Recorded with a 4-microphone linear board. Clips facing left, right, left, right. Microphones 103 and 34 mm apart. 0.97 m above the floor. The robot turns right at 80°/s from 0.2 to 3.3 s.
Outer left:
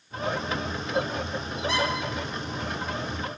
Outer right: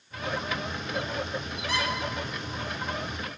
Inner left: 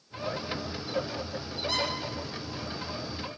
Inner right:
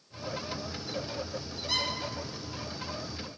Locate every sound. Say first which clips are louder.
1.7 s a squeak: outer left 4 dB, inner left 1 dB; 25° left (ahead or behind), 4 m; by 1.9 s 10° left (ahead or behind), 4 m